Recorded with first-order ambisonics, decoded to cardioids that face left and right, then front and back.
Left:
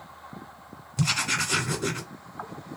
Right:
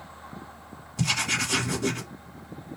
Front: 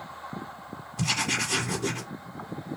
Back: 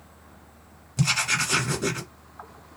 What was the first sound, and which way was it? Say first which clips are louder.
Writing: even, back 3 dB; 150° left.